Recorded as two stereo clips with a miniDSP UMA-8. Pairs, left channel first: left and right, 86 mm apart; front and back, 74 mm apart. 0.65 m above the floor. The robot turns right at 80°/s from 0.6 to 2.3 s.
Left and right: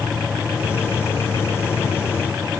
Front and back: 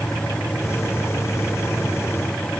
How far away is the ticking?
I don't hear ticking.